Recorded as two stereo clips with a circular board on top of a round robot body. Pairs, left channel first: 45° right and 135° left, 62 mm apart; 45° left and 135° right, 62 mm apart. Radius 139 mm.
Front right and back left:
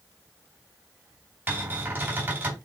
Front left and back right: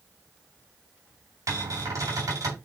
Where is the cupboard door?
165° right, 3.5 m.